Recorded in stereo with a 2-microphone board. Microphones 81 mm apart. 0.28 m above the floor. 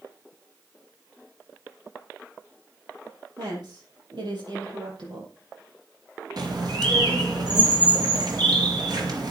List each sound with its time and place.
3.4 s a woman speaking: 70° right (ahead or behind), 8 m; by 5.3 s 80° right, 7 m
6.4 s a bird: 65° right (ahead or behind), 3 m